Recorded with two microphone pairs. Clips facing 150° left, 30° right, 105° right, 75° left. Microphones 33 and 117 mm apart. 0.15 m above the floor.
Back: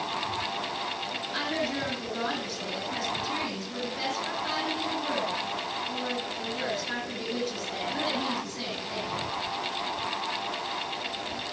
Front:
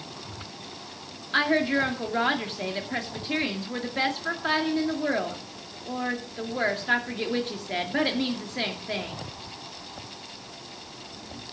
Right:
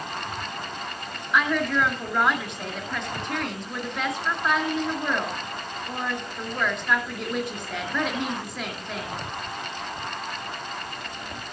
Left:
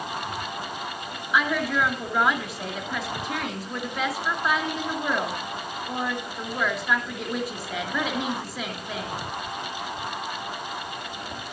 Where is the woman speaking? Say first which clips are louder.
Front 9 dB, right 1 dB; 10° right, 2.5 m.